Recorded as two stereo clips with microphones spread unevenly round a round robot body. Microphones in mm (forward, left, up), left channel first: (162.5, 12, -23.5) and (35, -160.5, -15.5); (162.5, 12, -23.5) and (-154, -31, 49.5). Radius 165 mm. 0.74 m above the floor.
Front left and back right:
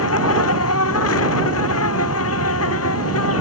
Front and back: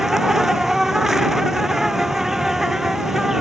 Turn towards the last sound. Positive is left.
turn(degrees=100)